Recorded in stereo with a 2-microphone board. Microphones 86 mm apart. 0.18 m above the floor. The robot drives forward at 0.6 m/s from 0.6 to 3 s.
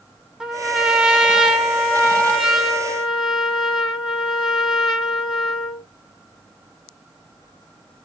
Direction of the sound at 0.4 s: 5° right (ahead or behind).